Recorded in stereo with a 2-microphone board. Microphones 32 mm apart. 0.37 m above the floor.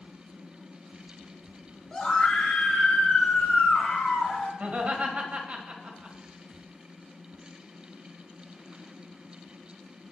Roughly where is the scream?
Left.